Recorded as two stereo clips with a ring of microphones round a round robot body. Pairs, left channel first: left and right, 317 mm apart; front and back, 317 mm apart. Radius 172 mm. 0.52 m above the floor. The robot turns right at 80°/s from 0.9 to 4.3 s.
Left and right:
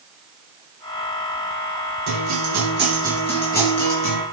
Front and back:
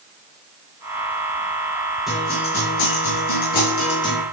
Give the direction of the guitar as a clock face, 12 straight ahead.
3 o'clock.